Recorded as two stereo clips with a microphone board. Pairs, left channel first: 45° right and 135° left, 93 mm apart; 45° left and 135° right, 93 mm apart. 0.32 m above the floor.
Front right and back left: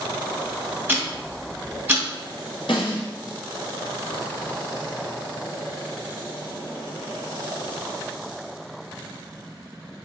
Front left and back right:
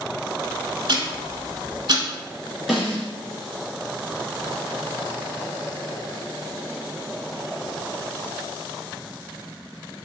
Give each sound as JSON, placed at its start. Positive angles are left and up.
{"t": 0.9, "sound": "ticking", "azimuth_deg": -155, "distance_m": 0.8}
{"t": 2.7, "sound": "a snare drum", "azimuth_deg": -45, "distance_m": 1.8}